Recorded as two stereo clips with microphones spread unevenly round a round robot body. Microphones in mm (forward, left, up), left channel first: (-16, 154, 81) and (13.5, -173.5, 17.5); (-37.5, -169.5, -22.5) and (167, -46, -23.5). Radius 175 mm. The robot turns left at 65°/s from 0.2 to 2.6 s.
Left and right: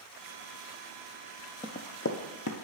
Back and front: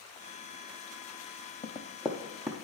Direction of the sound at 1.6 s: 150° left.